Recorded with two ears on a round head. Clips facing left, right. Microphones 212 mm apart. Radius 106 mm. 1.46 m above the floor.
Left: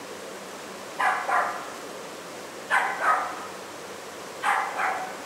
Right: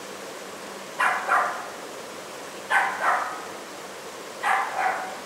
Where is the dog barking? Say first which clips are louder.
Even; 15° right (ahead or behind), 0.9 m; by 5.0 s 15° left (ahead or behind), 1.9 m.